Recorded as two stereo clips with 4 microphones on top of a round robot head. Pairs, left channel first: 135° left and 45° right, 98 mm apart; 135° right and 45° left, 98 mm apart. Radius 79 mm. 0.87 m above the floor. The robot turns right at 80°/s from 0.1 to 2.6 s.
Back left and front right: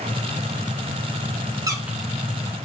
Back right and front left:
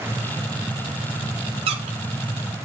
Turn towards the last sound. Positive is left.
turn(degrees=90)